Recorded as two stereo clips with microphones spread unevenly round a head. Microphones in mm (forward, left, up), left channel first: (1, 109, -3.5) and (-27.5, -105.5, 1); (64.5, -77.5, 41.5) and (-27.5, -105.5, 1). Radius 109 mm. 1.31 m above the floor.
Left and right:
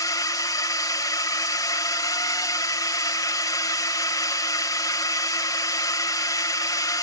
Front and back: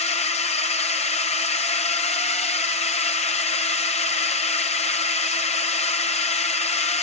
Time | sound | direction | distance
0.0 | a drone | 10° left | ?